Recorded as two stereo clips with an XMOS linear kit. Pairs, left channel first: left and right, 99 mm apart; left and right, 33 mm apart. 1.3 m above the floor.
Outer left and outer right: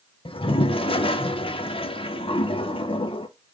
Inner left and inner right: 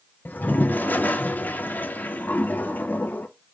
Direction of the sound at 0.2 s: 65° left (ahead or behind).